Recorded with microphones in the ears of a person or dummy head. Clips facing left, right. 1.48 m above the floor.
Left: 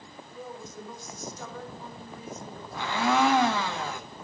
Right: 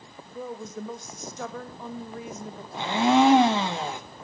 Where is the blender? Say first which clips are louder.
Right 5 dB; 15° right (ahead or behind), 0.7 m.